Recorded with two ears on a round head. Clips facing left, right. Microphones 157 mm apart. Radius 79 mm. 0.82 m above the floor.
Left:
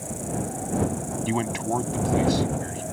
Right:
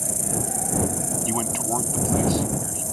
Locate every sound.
0.0 s an insect: 85° right
1.3 s a man speaking: 5° left (ahead or behind)